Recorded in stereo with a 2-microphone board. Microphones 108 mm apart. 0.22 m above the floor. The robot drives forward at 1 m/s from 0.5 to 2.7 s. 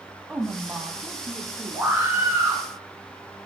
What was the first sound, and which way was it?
A woman speaking, 10° right (ahead or behind).